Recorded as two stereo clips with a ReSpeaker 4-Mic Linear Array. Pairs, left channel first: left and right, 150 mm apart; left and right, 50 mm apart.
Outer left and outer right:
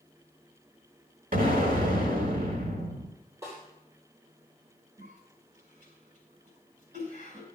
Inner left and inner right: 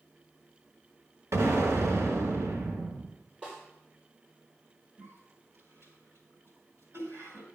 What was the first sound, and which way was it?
An explosion, 75° right (ahead or behind).